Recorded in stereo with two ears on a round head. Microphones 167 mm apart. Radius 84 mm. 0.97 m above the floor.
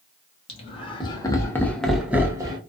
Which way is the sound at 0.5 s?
35° left (ahead or behind).